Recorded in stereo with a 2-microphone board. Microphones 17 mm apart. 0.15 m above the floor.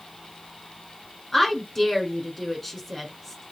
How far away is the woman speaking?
About 1.5 m.